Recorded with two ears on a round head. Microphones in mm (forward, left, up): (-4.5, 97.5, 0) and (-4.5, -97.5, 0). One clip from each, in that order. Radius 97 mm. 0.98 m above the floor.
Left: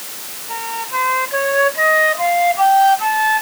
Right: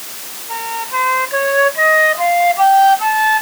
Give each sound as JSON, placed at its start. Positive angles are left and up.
{"t": 0.5, "sound": "a flute", "side_deg": -5}